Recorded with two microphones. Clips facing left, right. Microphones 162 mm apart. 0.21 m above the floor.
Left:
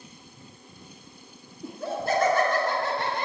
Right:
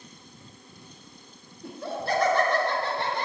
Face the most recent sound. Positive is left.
turn(degrees=50)  # may be behind; listen again after turning